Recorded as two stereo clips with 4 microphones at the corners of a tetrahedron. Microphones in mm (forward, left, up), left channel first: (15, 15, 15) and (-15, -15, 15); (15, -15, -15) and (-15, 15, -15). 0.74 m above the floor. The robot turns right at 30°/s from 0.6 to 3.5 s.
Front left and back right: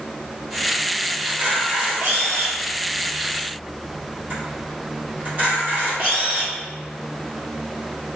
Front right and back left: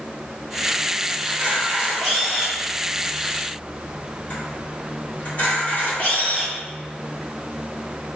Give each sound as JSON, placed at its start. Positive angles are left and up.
{"t": 1.3, "sound": "a camera shutter", "azimuth_deg": -160, "distance_m": 1.5}